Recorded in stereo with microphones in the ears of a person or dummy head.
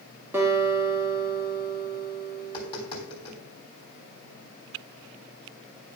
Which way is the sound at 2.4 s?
25° left (ahead or behind).